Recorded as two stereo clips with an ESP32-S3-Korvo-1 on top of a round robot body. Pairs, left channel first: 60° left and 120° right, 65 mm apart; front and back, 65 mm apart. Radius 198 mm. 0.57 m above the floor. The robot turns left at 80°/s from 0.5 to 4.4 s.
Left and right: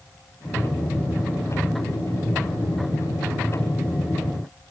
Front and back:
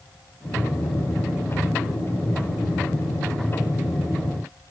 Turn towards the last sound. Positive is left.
No sound to turn to.